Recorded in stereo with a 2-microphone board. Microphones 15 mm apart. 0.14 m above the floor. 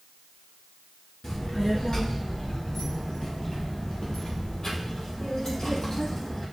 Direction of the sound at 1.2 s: 45° left (ahead or behind).